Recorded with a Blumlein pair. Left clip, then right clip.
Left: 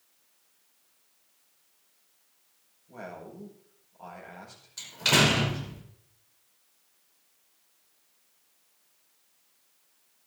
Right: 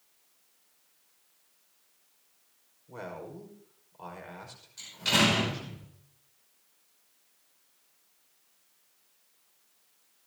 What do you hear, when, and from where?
2.9 s a man speaking: 25° right, 5 m
4.8 s a door slam: 25° left, 5 m